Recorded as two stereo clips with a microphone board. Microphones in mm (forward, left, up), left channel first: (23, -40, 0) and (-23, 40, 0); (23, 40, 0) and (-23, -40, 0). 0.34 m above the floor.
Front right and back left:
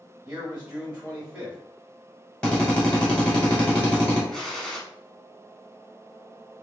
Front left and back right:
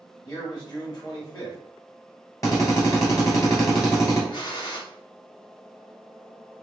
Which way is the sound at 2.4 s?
15° left.